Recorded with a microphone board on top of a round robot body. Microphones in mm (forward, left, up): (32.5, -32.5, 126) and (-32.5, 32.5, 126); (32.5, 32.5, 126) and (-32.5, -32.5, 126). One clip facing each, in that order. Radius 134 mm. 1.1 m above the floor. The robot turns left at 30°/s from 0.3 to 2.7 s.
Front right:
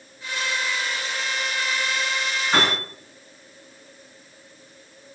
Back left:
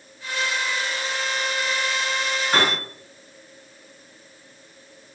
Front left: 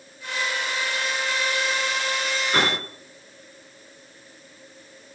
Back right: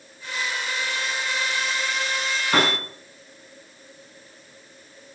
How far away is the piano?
About 9 m.